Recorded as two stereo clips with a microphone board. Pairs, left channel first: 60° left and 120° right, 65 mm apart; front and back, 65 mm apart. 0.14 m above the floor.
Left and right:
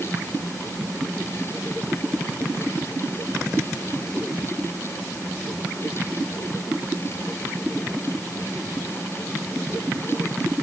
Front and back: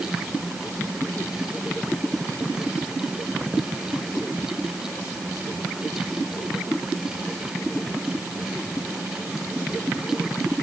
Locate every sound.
Only background noise.